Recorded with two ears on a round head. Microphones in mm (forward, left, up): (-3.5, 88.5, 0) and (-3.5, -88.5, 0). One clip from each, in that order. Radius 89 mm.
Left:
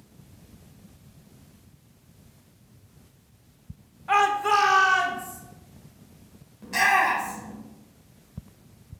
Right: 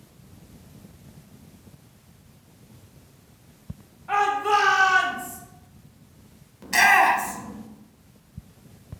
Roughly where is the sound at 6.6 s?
Right.